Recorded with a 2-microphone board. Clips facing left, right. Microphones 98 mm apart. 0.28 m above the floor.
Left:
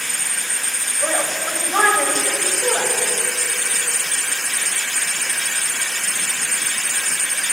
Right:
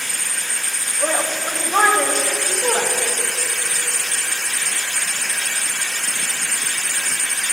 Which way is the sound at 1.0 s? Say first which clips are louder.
Right 1 dB; 10° right (ahead or behind).